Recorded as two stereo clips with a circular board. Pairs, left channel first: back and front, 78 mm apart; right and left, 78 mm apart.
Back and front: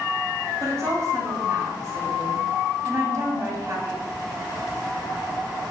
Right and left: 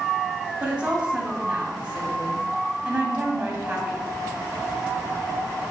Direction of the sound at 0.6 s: 20° left.